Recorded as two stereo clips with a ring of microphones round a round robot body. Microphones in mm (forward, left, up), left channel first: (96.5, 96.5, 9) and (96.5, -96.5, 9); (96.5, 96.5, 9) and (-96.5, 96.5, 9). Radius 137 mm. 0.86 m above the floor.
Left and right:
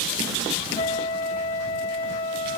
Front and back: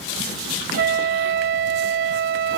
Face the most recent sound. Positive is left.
turn(degrees=160)